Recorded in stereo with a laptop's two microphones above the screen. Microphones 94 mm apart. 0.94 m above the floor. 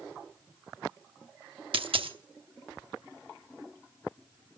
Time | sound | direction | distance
1.7 | a dropped coin | 70° right (ahead or behind) | 0.8 m